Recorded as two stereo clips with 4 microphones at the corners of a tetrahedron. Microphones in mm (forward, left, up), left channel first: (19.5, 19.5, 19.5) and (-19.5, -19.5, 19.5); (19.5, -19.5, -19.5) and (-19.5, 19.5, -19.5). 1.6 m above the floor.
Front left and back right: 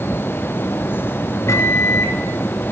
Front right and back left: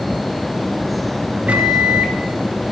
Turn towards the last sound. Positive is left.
turn(degrees=70)